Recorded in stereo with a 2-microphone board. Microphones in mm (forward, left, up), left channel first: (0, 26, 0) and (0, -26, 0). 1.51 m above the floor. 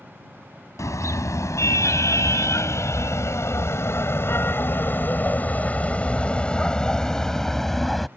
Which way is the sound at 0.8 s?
75° left (ahead or behind).